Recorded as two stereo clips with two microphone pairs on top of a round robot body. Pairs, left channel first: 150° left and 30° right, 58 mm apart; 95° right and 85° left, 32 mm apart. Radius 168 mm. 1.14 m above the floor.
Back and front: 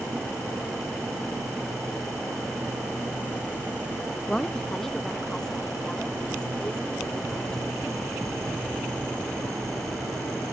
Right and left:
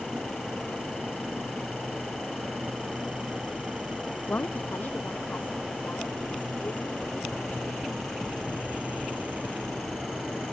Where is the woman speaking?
130° right.